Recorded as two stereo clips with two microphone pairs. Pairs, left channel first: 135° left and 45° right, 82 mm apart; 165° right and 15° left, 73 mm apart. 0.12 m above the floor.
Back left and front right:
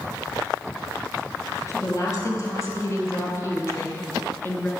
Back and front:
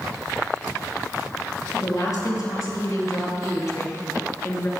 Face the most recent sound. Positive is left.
turn(degrees=-175)